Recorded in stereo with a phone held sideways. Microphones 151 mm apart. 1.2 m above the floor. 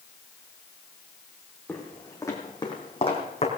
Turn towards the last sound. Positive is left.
turn(degrees=45)  # may be behind; listen again after turning